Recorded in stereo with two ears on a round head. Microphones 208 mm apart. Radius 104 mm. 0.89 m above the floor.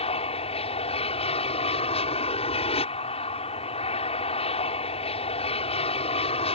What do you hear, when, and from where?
0.0 s an aircraft: 25° left (ahead or behind)